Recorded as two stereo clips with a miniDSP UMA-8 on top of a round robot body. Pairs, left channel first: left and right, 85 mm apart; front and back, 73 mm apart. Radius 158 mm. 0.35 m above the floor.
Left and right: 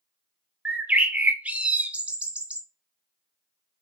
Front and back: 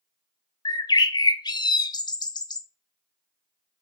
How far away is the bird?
About 0.5 m.